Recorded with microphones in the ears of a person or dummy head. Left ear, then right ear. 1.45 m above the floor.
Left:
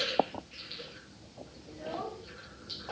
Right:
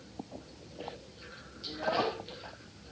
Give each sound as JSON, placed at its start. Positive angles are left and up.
{"t": 1.7, "sound": "a child speaking", "side_deg": -70, "distance_m": 1.2}